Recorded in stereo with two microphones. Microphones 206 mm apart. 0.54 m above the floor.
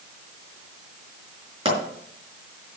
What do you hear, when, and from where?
1.6 s a pop: 25° right (ahead or behind), 4.5 m